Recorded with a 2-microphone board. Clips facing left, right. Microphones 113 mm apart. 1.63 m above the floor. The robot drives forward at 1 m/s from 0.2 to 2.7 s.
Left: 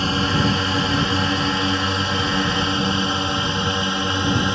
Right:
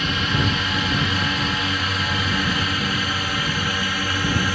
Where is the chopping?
No chopping in this recording.